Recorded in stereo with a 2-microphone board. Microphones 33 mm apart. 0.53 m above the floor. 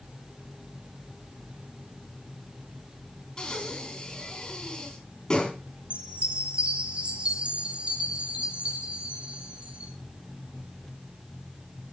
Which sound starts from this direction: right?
A chime, at 5.9 s.